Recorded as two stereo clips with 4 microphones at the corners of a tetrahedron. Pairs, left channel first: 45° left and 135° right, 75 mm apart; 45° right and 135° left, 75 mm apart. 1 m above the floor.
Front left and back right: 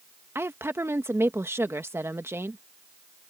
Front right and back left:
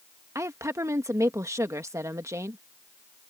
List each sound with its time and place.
0.3 s a woman speaking: 175° left